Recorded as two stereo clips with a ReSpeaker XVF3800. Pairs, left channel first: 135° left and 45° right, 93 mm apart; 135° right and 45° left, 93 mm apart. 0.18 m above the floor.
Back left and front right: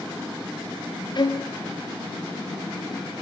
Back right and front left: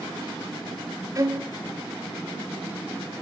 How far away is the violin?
About 1.0 m.